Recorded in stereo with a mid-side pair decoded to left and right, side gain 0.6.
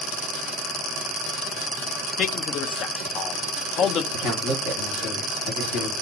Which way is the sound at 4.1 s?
70° left.